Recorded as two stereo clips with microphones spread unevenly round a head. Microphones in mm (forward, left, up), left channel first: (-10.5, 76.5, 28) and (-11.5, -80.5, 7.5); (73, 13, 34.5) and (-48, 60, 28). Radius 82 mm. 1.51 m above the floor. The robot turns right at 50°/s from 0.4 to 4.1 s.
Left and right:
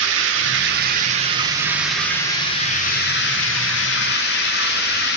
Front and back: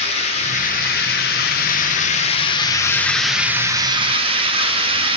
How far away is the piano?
I don't hear a piano.